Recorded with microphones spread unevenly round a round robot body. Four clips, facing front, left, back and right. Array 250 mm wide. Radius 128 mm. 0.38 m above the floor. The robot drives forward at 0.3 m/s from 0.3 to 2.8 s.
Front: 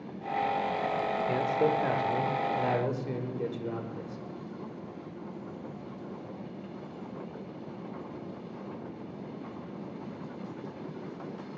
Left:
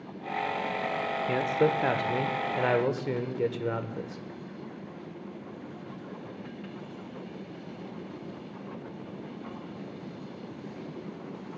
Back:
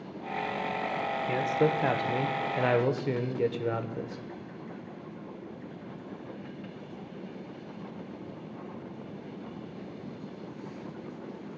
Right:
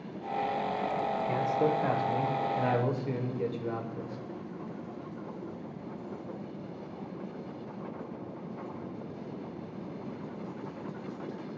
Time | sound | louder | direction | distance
1.3 | a man speaking | left 3 dB, back 1 dB | 85° left | 0.9 m